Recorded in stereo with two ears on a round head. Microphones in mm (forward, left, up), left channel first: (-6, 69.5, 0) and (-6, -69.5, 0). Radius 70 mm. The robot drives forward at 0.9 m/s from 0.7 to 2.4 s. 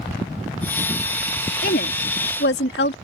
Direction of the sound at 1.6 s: 60° left (ahead or behind).